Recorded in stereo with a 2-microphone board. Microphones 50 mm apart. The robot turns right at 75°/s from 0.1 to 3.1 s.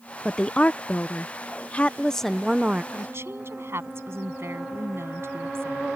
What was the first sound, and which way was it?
A woman speaking, 20° left.